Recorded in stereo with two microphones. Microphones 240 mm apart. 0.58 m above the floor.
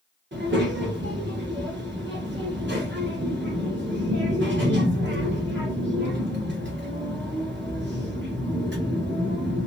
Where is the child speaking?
50° right (ahead or behind), 1.3 m.